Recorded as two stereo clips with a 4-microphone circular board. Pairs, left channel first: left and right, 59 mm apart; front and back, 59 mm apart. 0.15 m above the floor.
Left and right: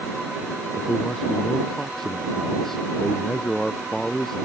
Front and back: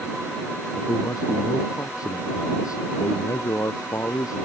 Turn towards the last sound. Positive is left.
turn(degrees=5)